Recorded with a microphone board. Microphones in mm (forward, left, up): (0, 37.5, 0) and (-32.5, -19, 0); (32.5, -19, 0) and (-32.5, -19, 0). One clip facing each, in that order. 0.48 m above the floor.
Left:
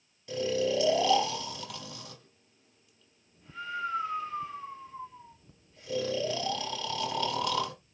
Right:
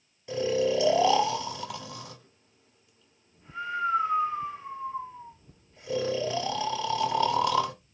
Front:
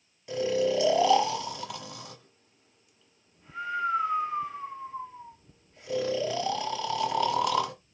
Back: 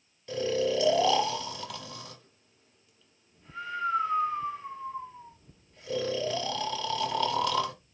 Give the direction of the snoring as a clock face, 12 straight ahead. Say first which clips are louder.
Right 3 dB, front 2 dB; 2 o'clock.